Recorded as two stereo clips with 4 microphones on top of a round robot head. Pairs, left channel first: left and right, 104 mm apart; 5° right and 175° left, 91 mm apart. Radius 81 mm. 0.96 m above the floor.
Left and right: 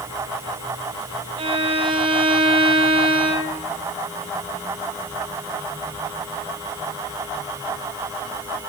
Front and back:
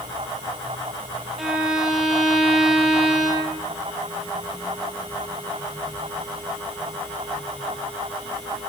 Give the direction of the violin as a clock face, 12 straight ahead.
3 o'clock.